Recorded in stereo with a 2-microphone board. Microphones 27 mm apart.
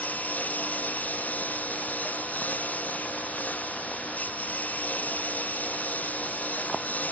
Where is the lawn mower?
80° left; by 7.1 s 85° left.